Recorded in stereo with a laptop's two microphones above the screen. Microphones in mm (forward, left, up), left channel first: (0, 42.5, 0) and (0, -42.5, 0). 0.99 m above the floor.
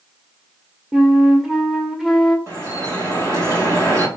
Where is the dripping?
40° right (ahead or behind), 0.9 m.